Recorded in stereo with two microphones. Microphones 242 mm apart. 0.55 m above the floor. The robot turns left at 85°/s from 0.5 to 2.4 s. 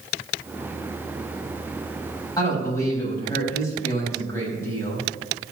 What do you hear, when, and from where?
2.4 s a man speaking: 15° left (ahead or behind), 4 m; by 5.0 s 10° left (ahead or behind), 4 m